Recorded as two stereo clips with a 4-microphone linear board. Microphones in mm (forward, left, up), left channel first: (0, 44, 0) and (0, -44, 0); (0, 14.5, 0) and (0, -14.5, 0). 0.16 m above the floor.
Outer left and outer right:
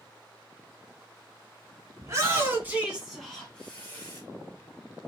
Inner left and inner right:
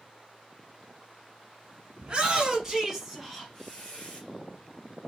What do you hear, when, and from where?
2.0 s a shout: 35° right (ahead or behind), 1.3 m; by 4.2 s 30° left (ahead or behind), 1.2 m